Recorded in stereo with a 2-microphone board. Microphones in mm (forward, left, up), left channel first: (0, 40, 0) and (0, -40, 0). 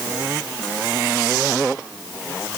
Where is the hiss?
I don't hear a hiss.